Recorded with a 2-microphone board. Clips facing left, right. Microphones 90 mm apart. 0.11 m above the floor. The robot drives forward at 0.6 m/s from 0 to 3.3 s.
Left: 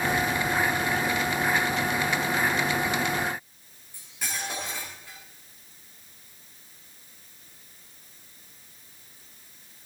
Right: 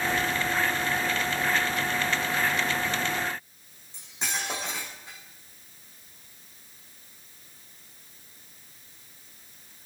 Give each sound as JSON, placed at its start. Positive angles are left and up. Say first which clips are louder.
{"t": 3.9, "sound": "cutlery clinking", "louder": "right 2 dB", "side_deg": -20, "distance_m": 5.0}